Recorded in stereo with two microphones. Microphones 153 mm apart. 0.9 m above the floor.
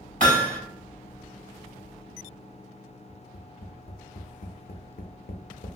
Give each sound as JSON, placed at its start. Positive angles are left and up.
{"t": 0.2, "sound": "hammering", "side_deg": -65, "distance_m": 1.8}
{"t": 3.1, "sound": "tapping", "side_deg": 75, "distance_m": 0.5}